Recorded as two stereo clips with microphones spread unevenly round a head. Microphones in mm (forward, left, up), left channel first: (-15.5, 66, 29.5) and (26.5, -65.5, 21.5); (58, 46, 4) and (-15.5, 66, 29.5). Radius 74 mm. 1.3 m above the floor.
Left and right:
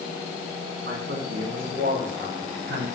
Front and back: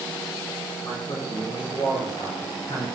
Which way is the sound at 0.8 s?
80° right.